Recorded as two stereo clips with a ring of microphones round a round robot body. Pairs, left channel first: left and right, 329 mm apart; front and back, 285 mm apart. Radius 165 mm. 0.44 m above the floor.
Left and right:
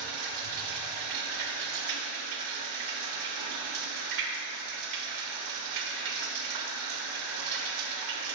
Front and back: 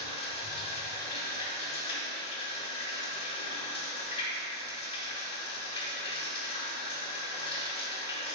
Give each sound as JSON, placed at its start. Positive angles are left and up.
{"t": 0.0, "sound": "running water", "azimuth_deg": -70, "distance_m": 0.9}